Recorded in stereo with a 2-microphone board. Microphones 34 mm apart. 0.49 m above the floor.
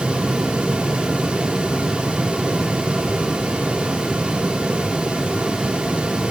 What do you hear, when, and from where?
Only background noise.